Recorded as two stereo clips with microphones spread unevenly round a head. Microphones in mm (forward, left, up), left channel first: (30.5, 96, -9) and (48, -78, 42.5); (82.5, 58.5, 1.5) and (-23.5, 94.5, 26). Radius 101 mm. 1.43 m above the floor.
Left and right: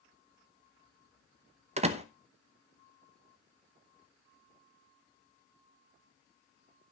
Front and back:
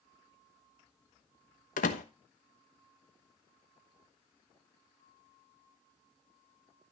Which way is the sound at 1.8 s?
45° right.